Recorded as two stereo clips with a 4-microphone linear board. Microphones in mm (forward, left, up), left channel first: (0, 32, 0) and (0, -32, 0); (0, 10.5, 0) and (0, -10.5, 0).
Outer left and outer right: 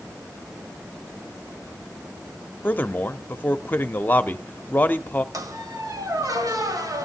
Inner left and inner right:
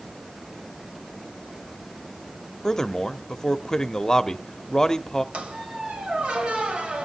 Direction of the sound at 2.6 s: 25° left (ahead or behind).